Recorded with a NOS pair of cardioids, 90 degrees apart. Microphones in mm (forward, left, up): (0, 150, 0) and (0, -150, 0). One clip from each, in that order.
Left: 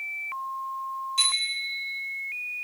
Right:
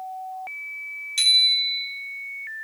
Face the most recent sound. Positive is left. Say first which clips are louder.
# right 8 dB
turn(degrees=-60)